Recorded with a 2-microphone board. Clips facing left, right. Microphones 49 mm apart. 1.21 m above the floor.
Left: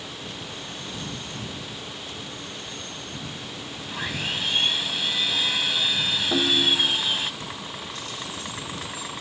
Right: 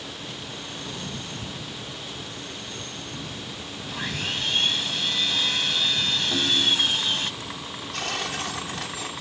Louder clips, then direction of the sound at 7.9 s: Right 5 dB; 80° right.